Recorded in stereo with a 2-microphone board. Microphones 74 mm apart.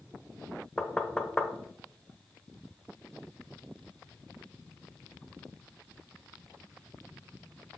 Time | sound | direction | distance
0.8 | knocking | 10° left (ahead or behind) | 0.8 m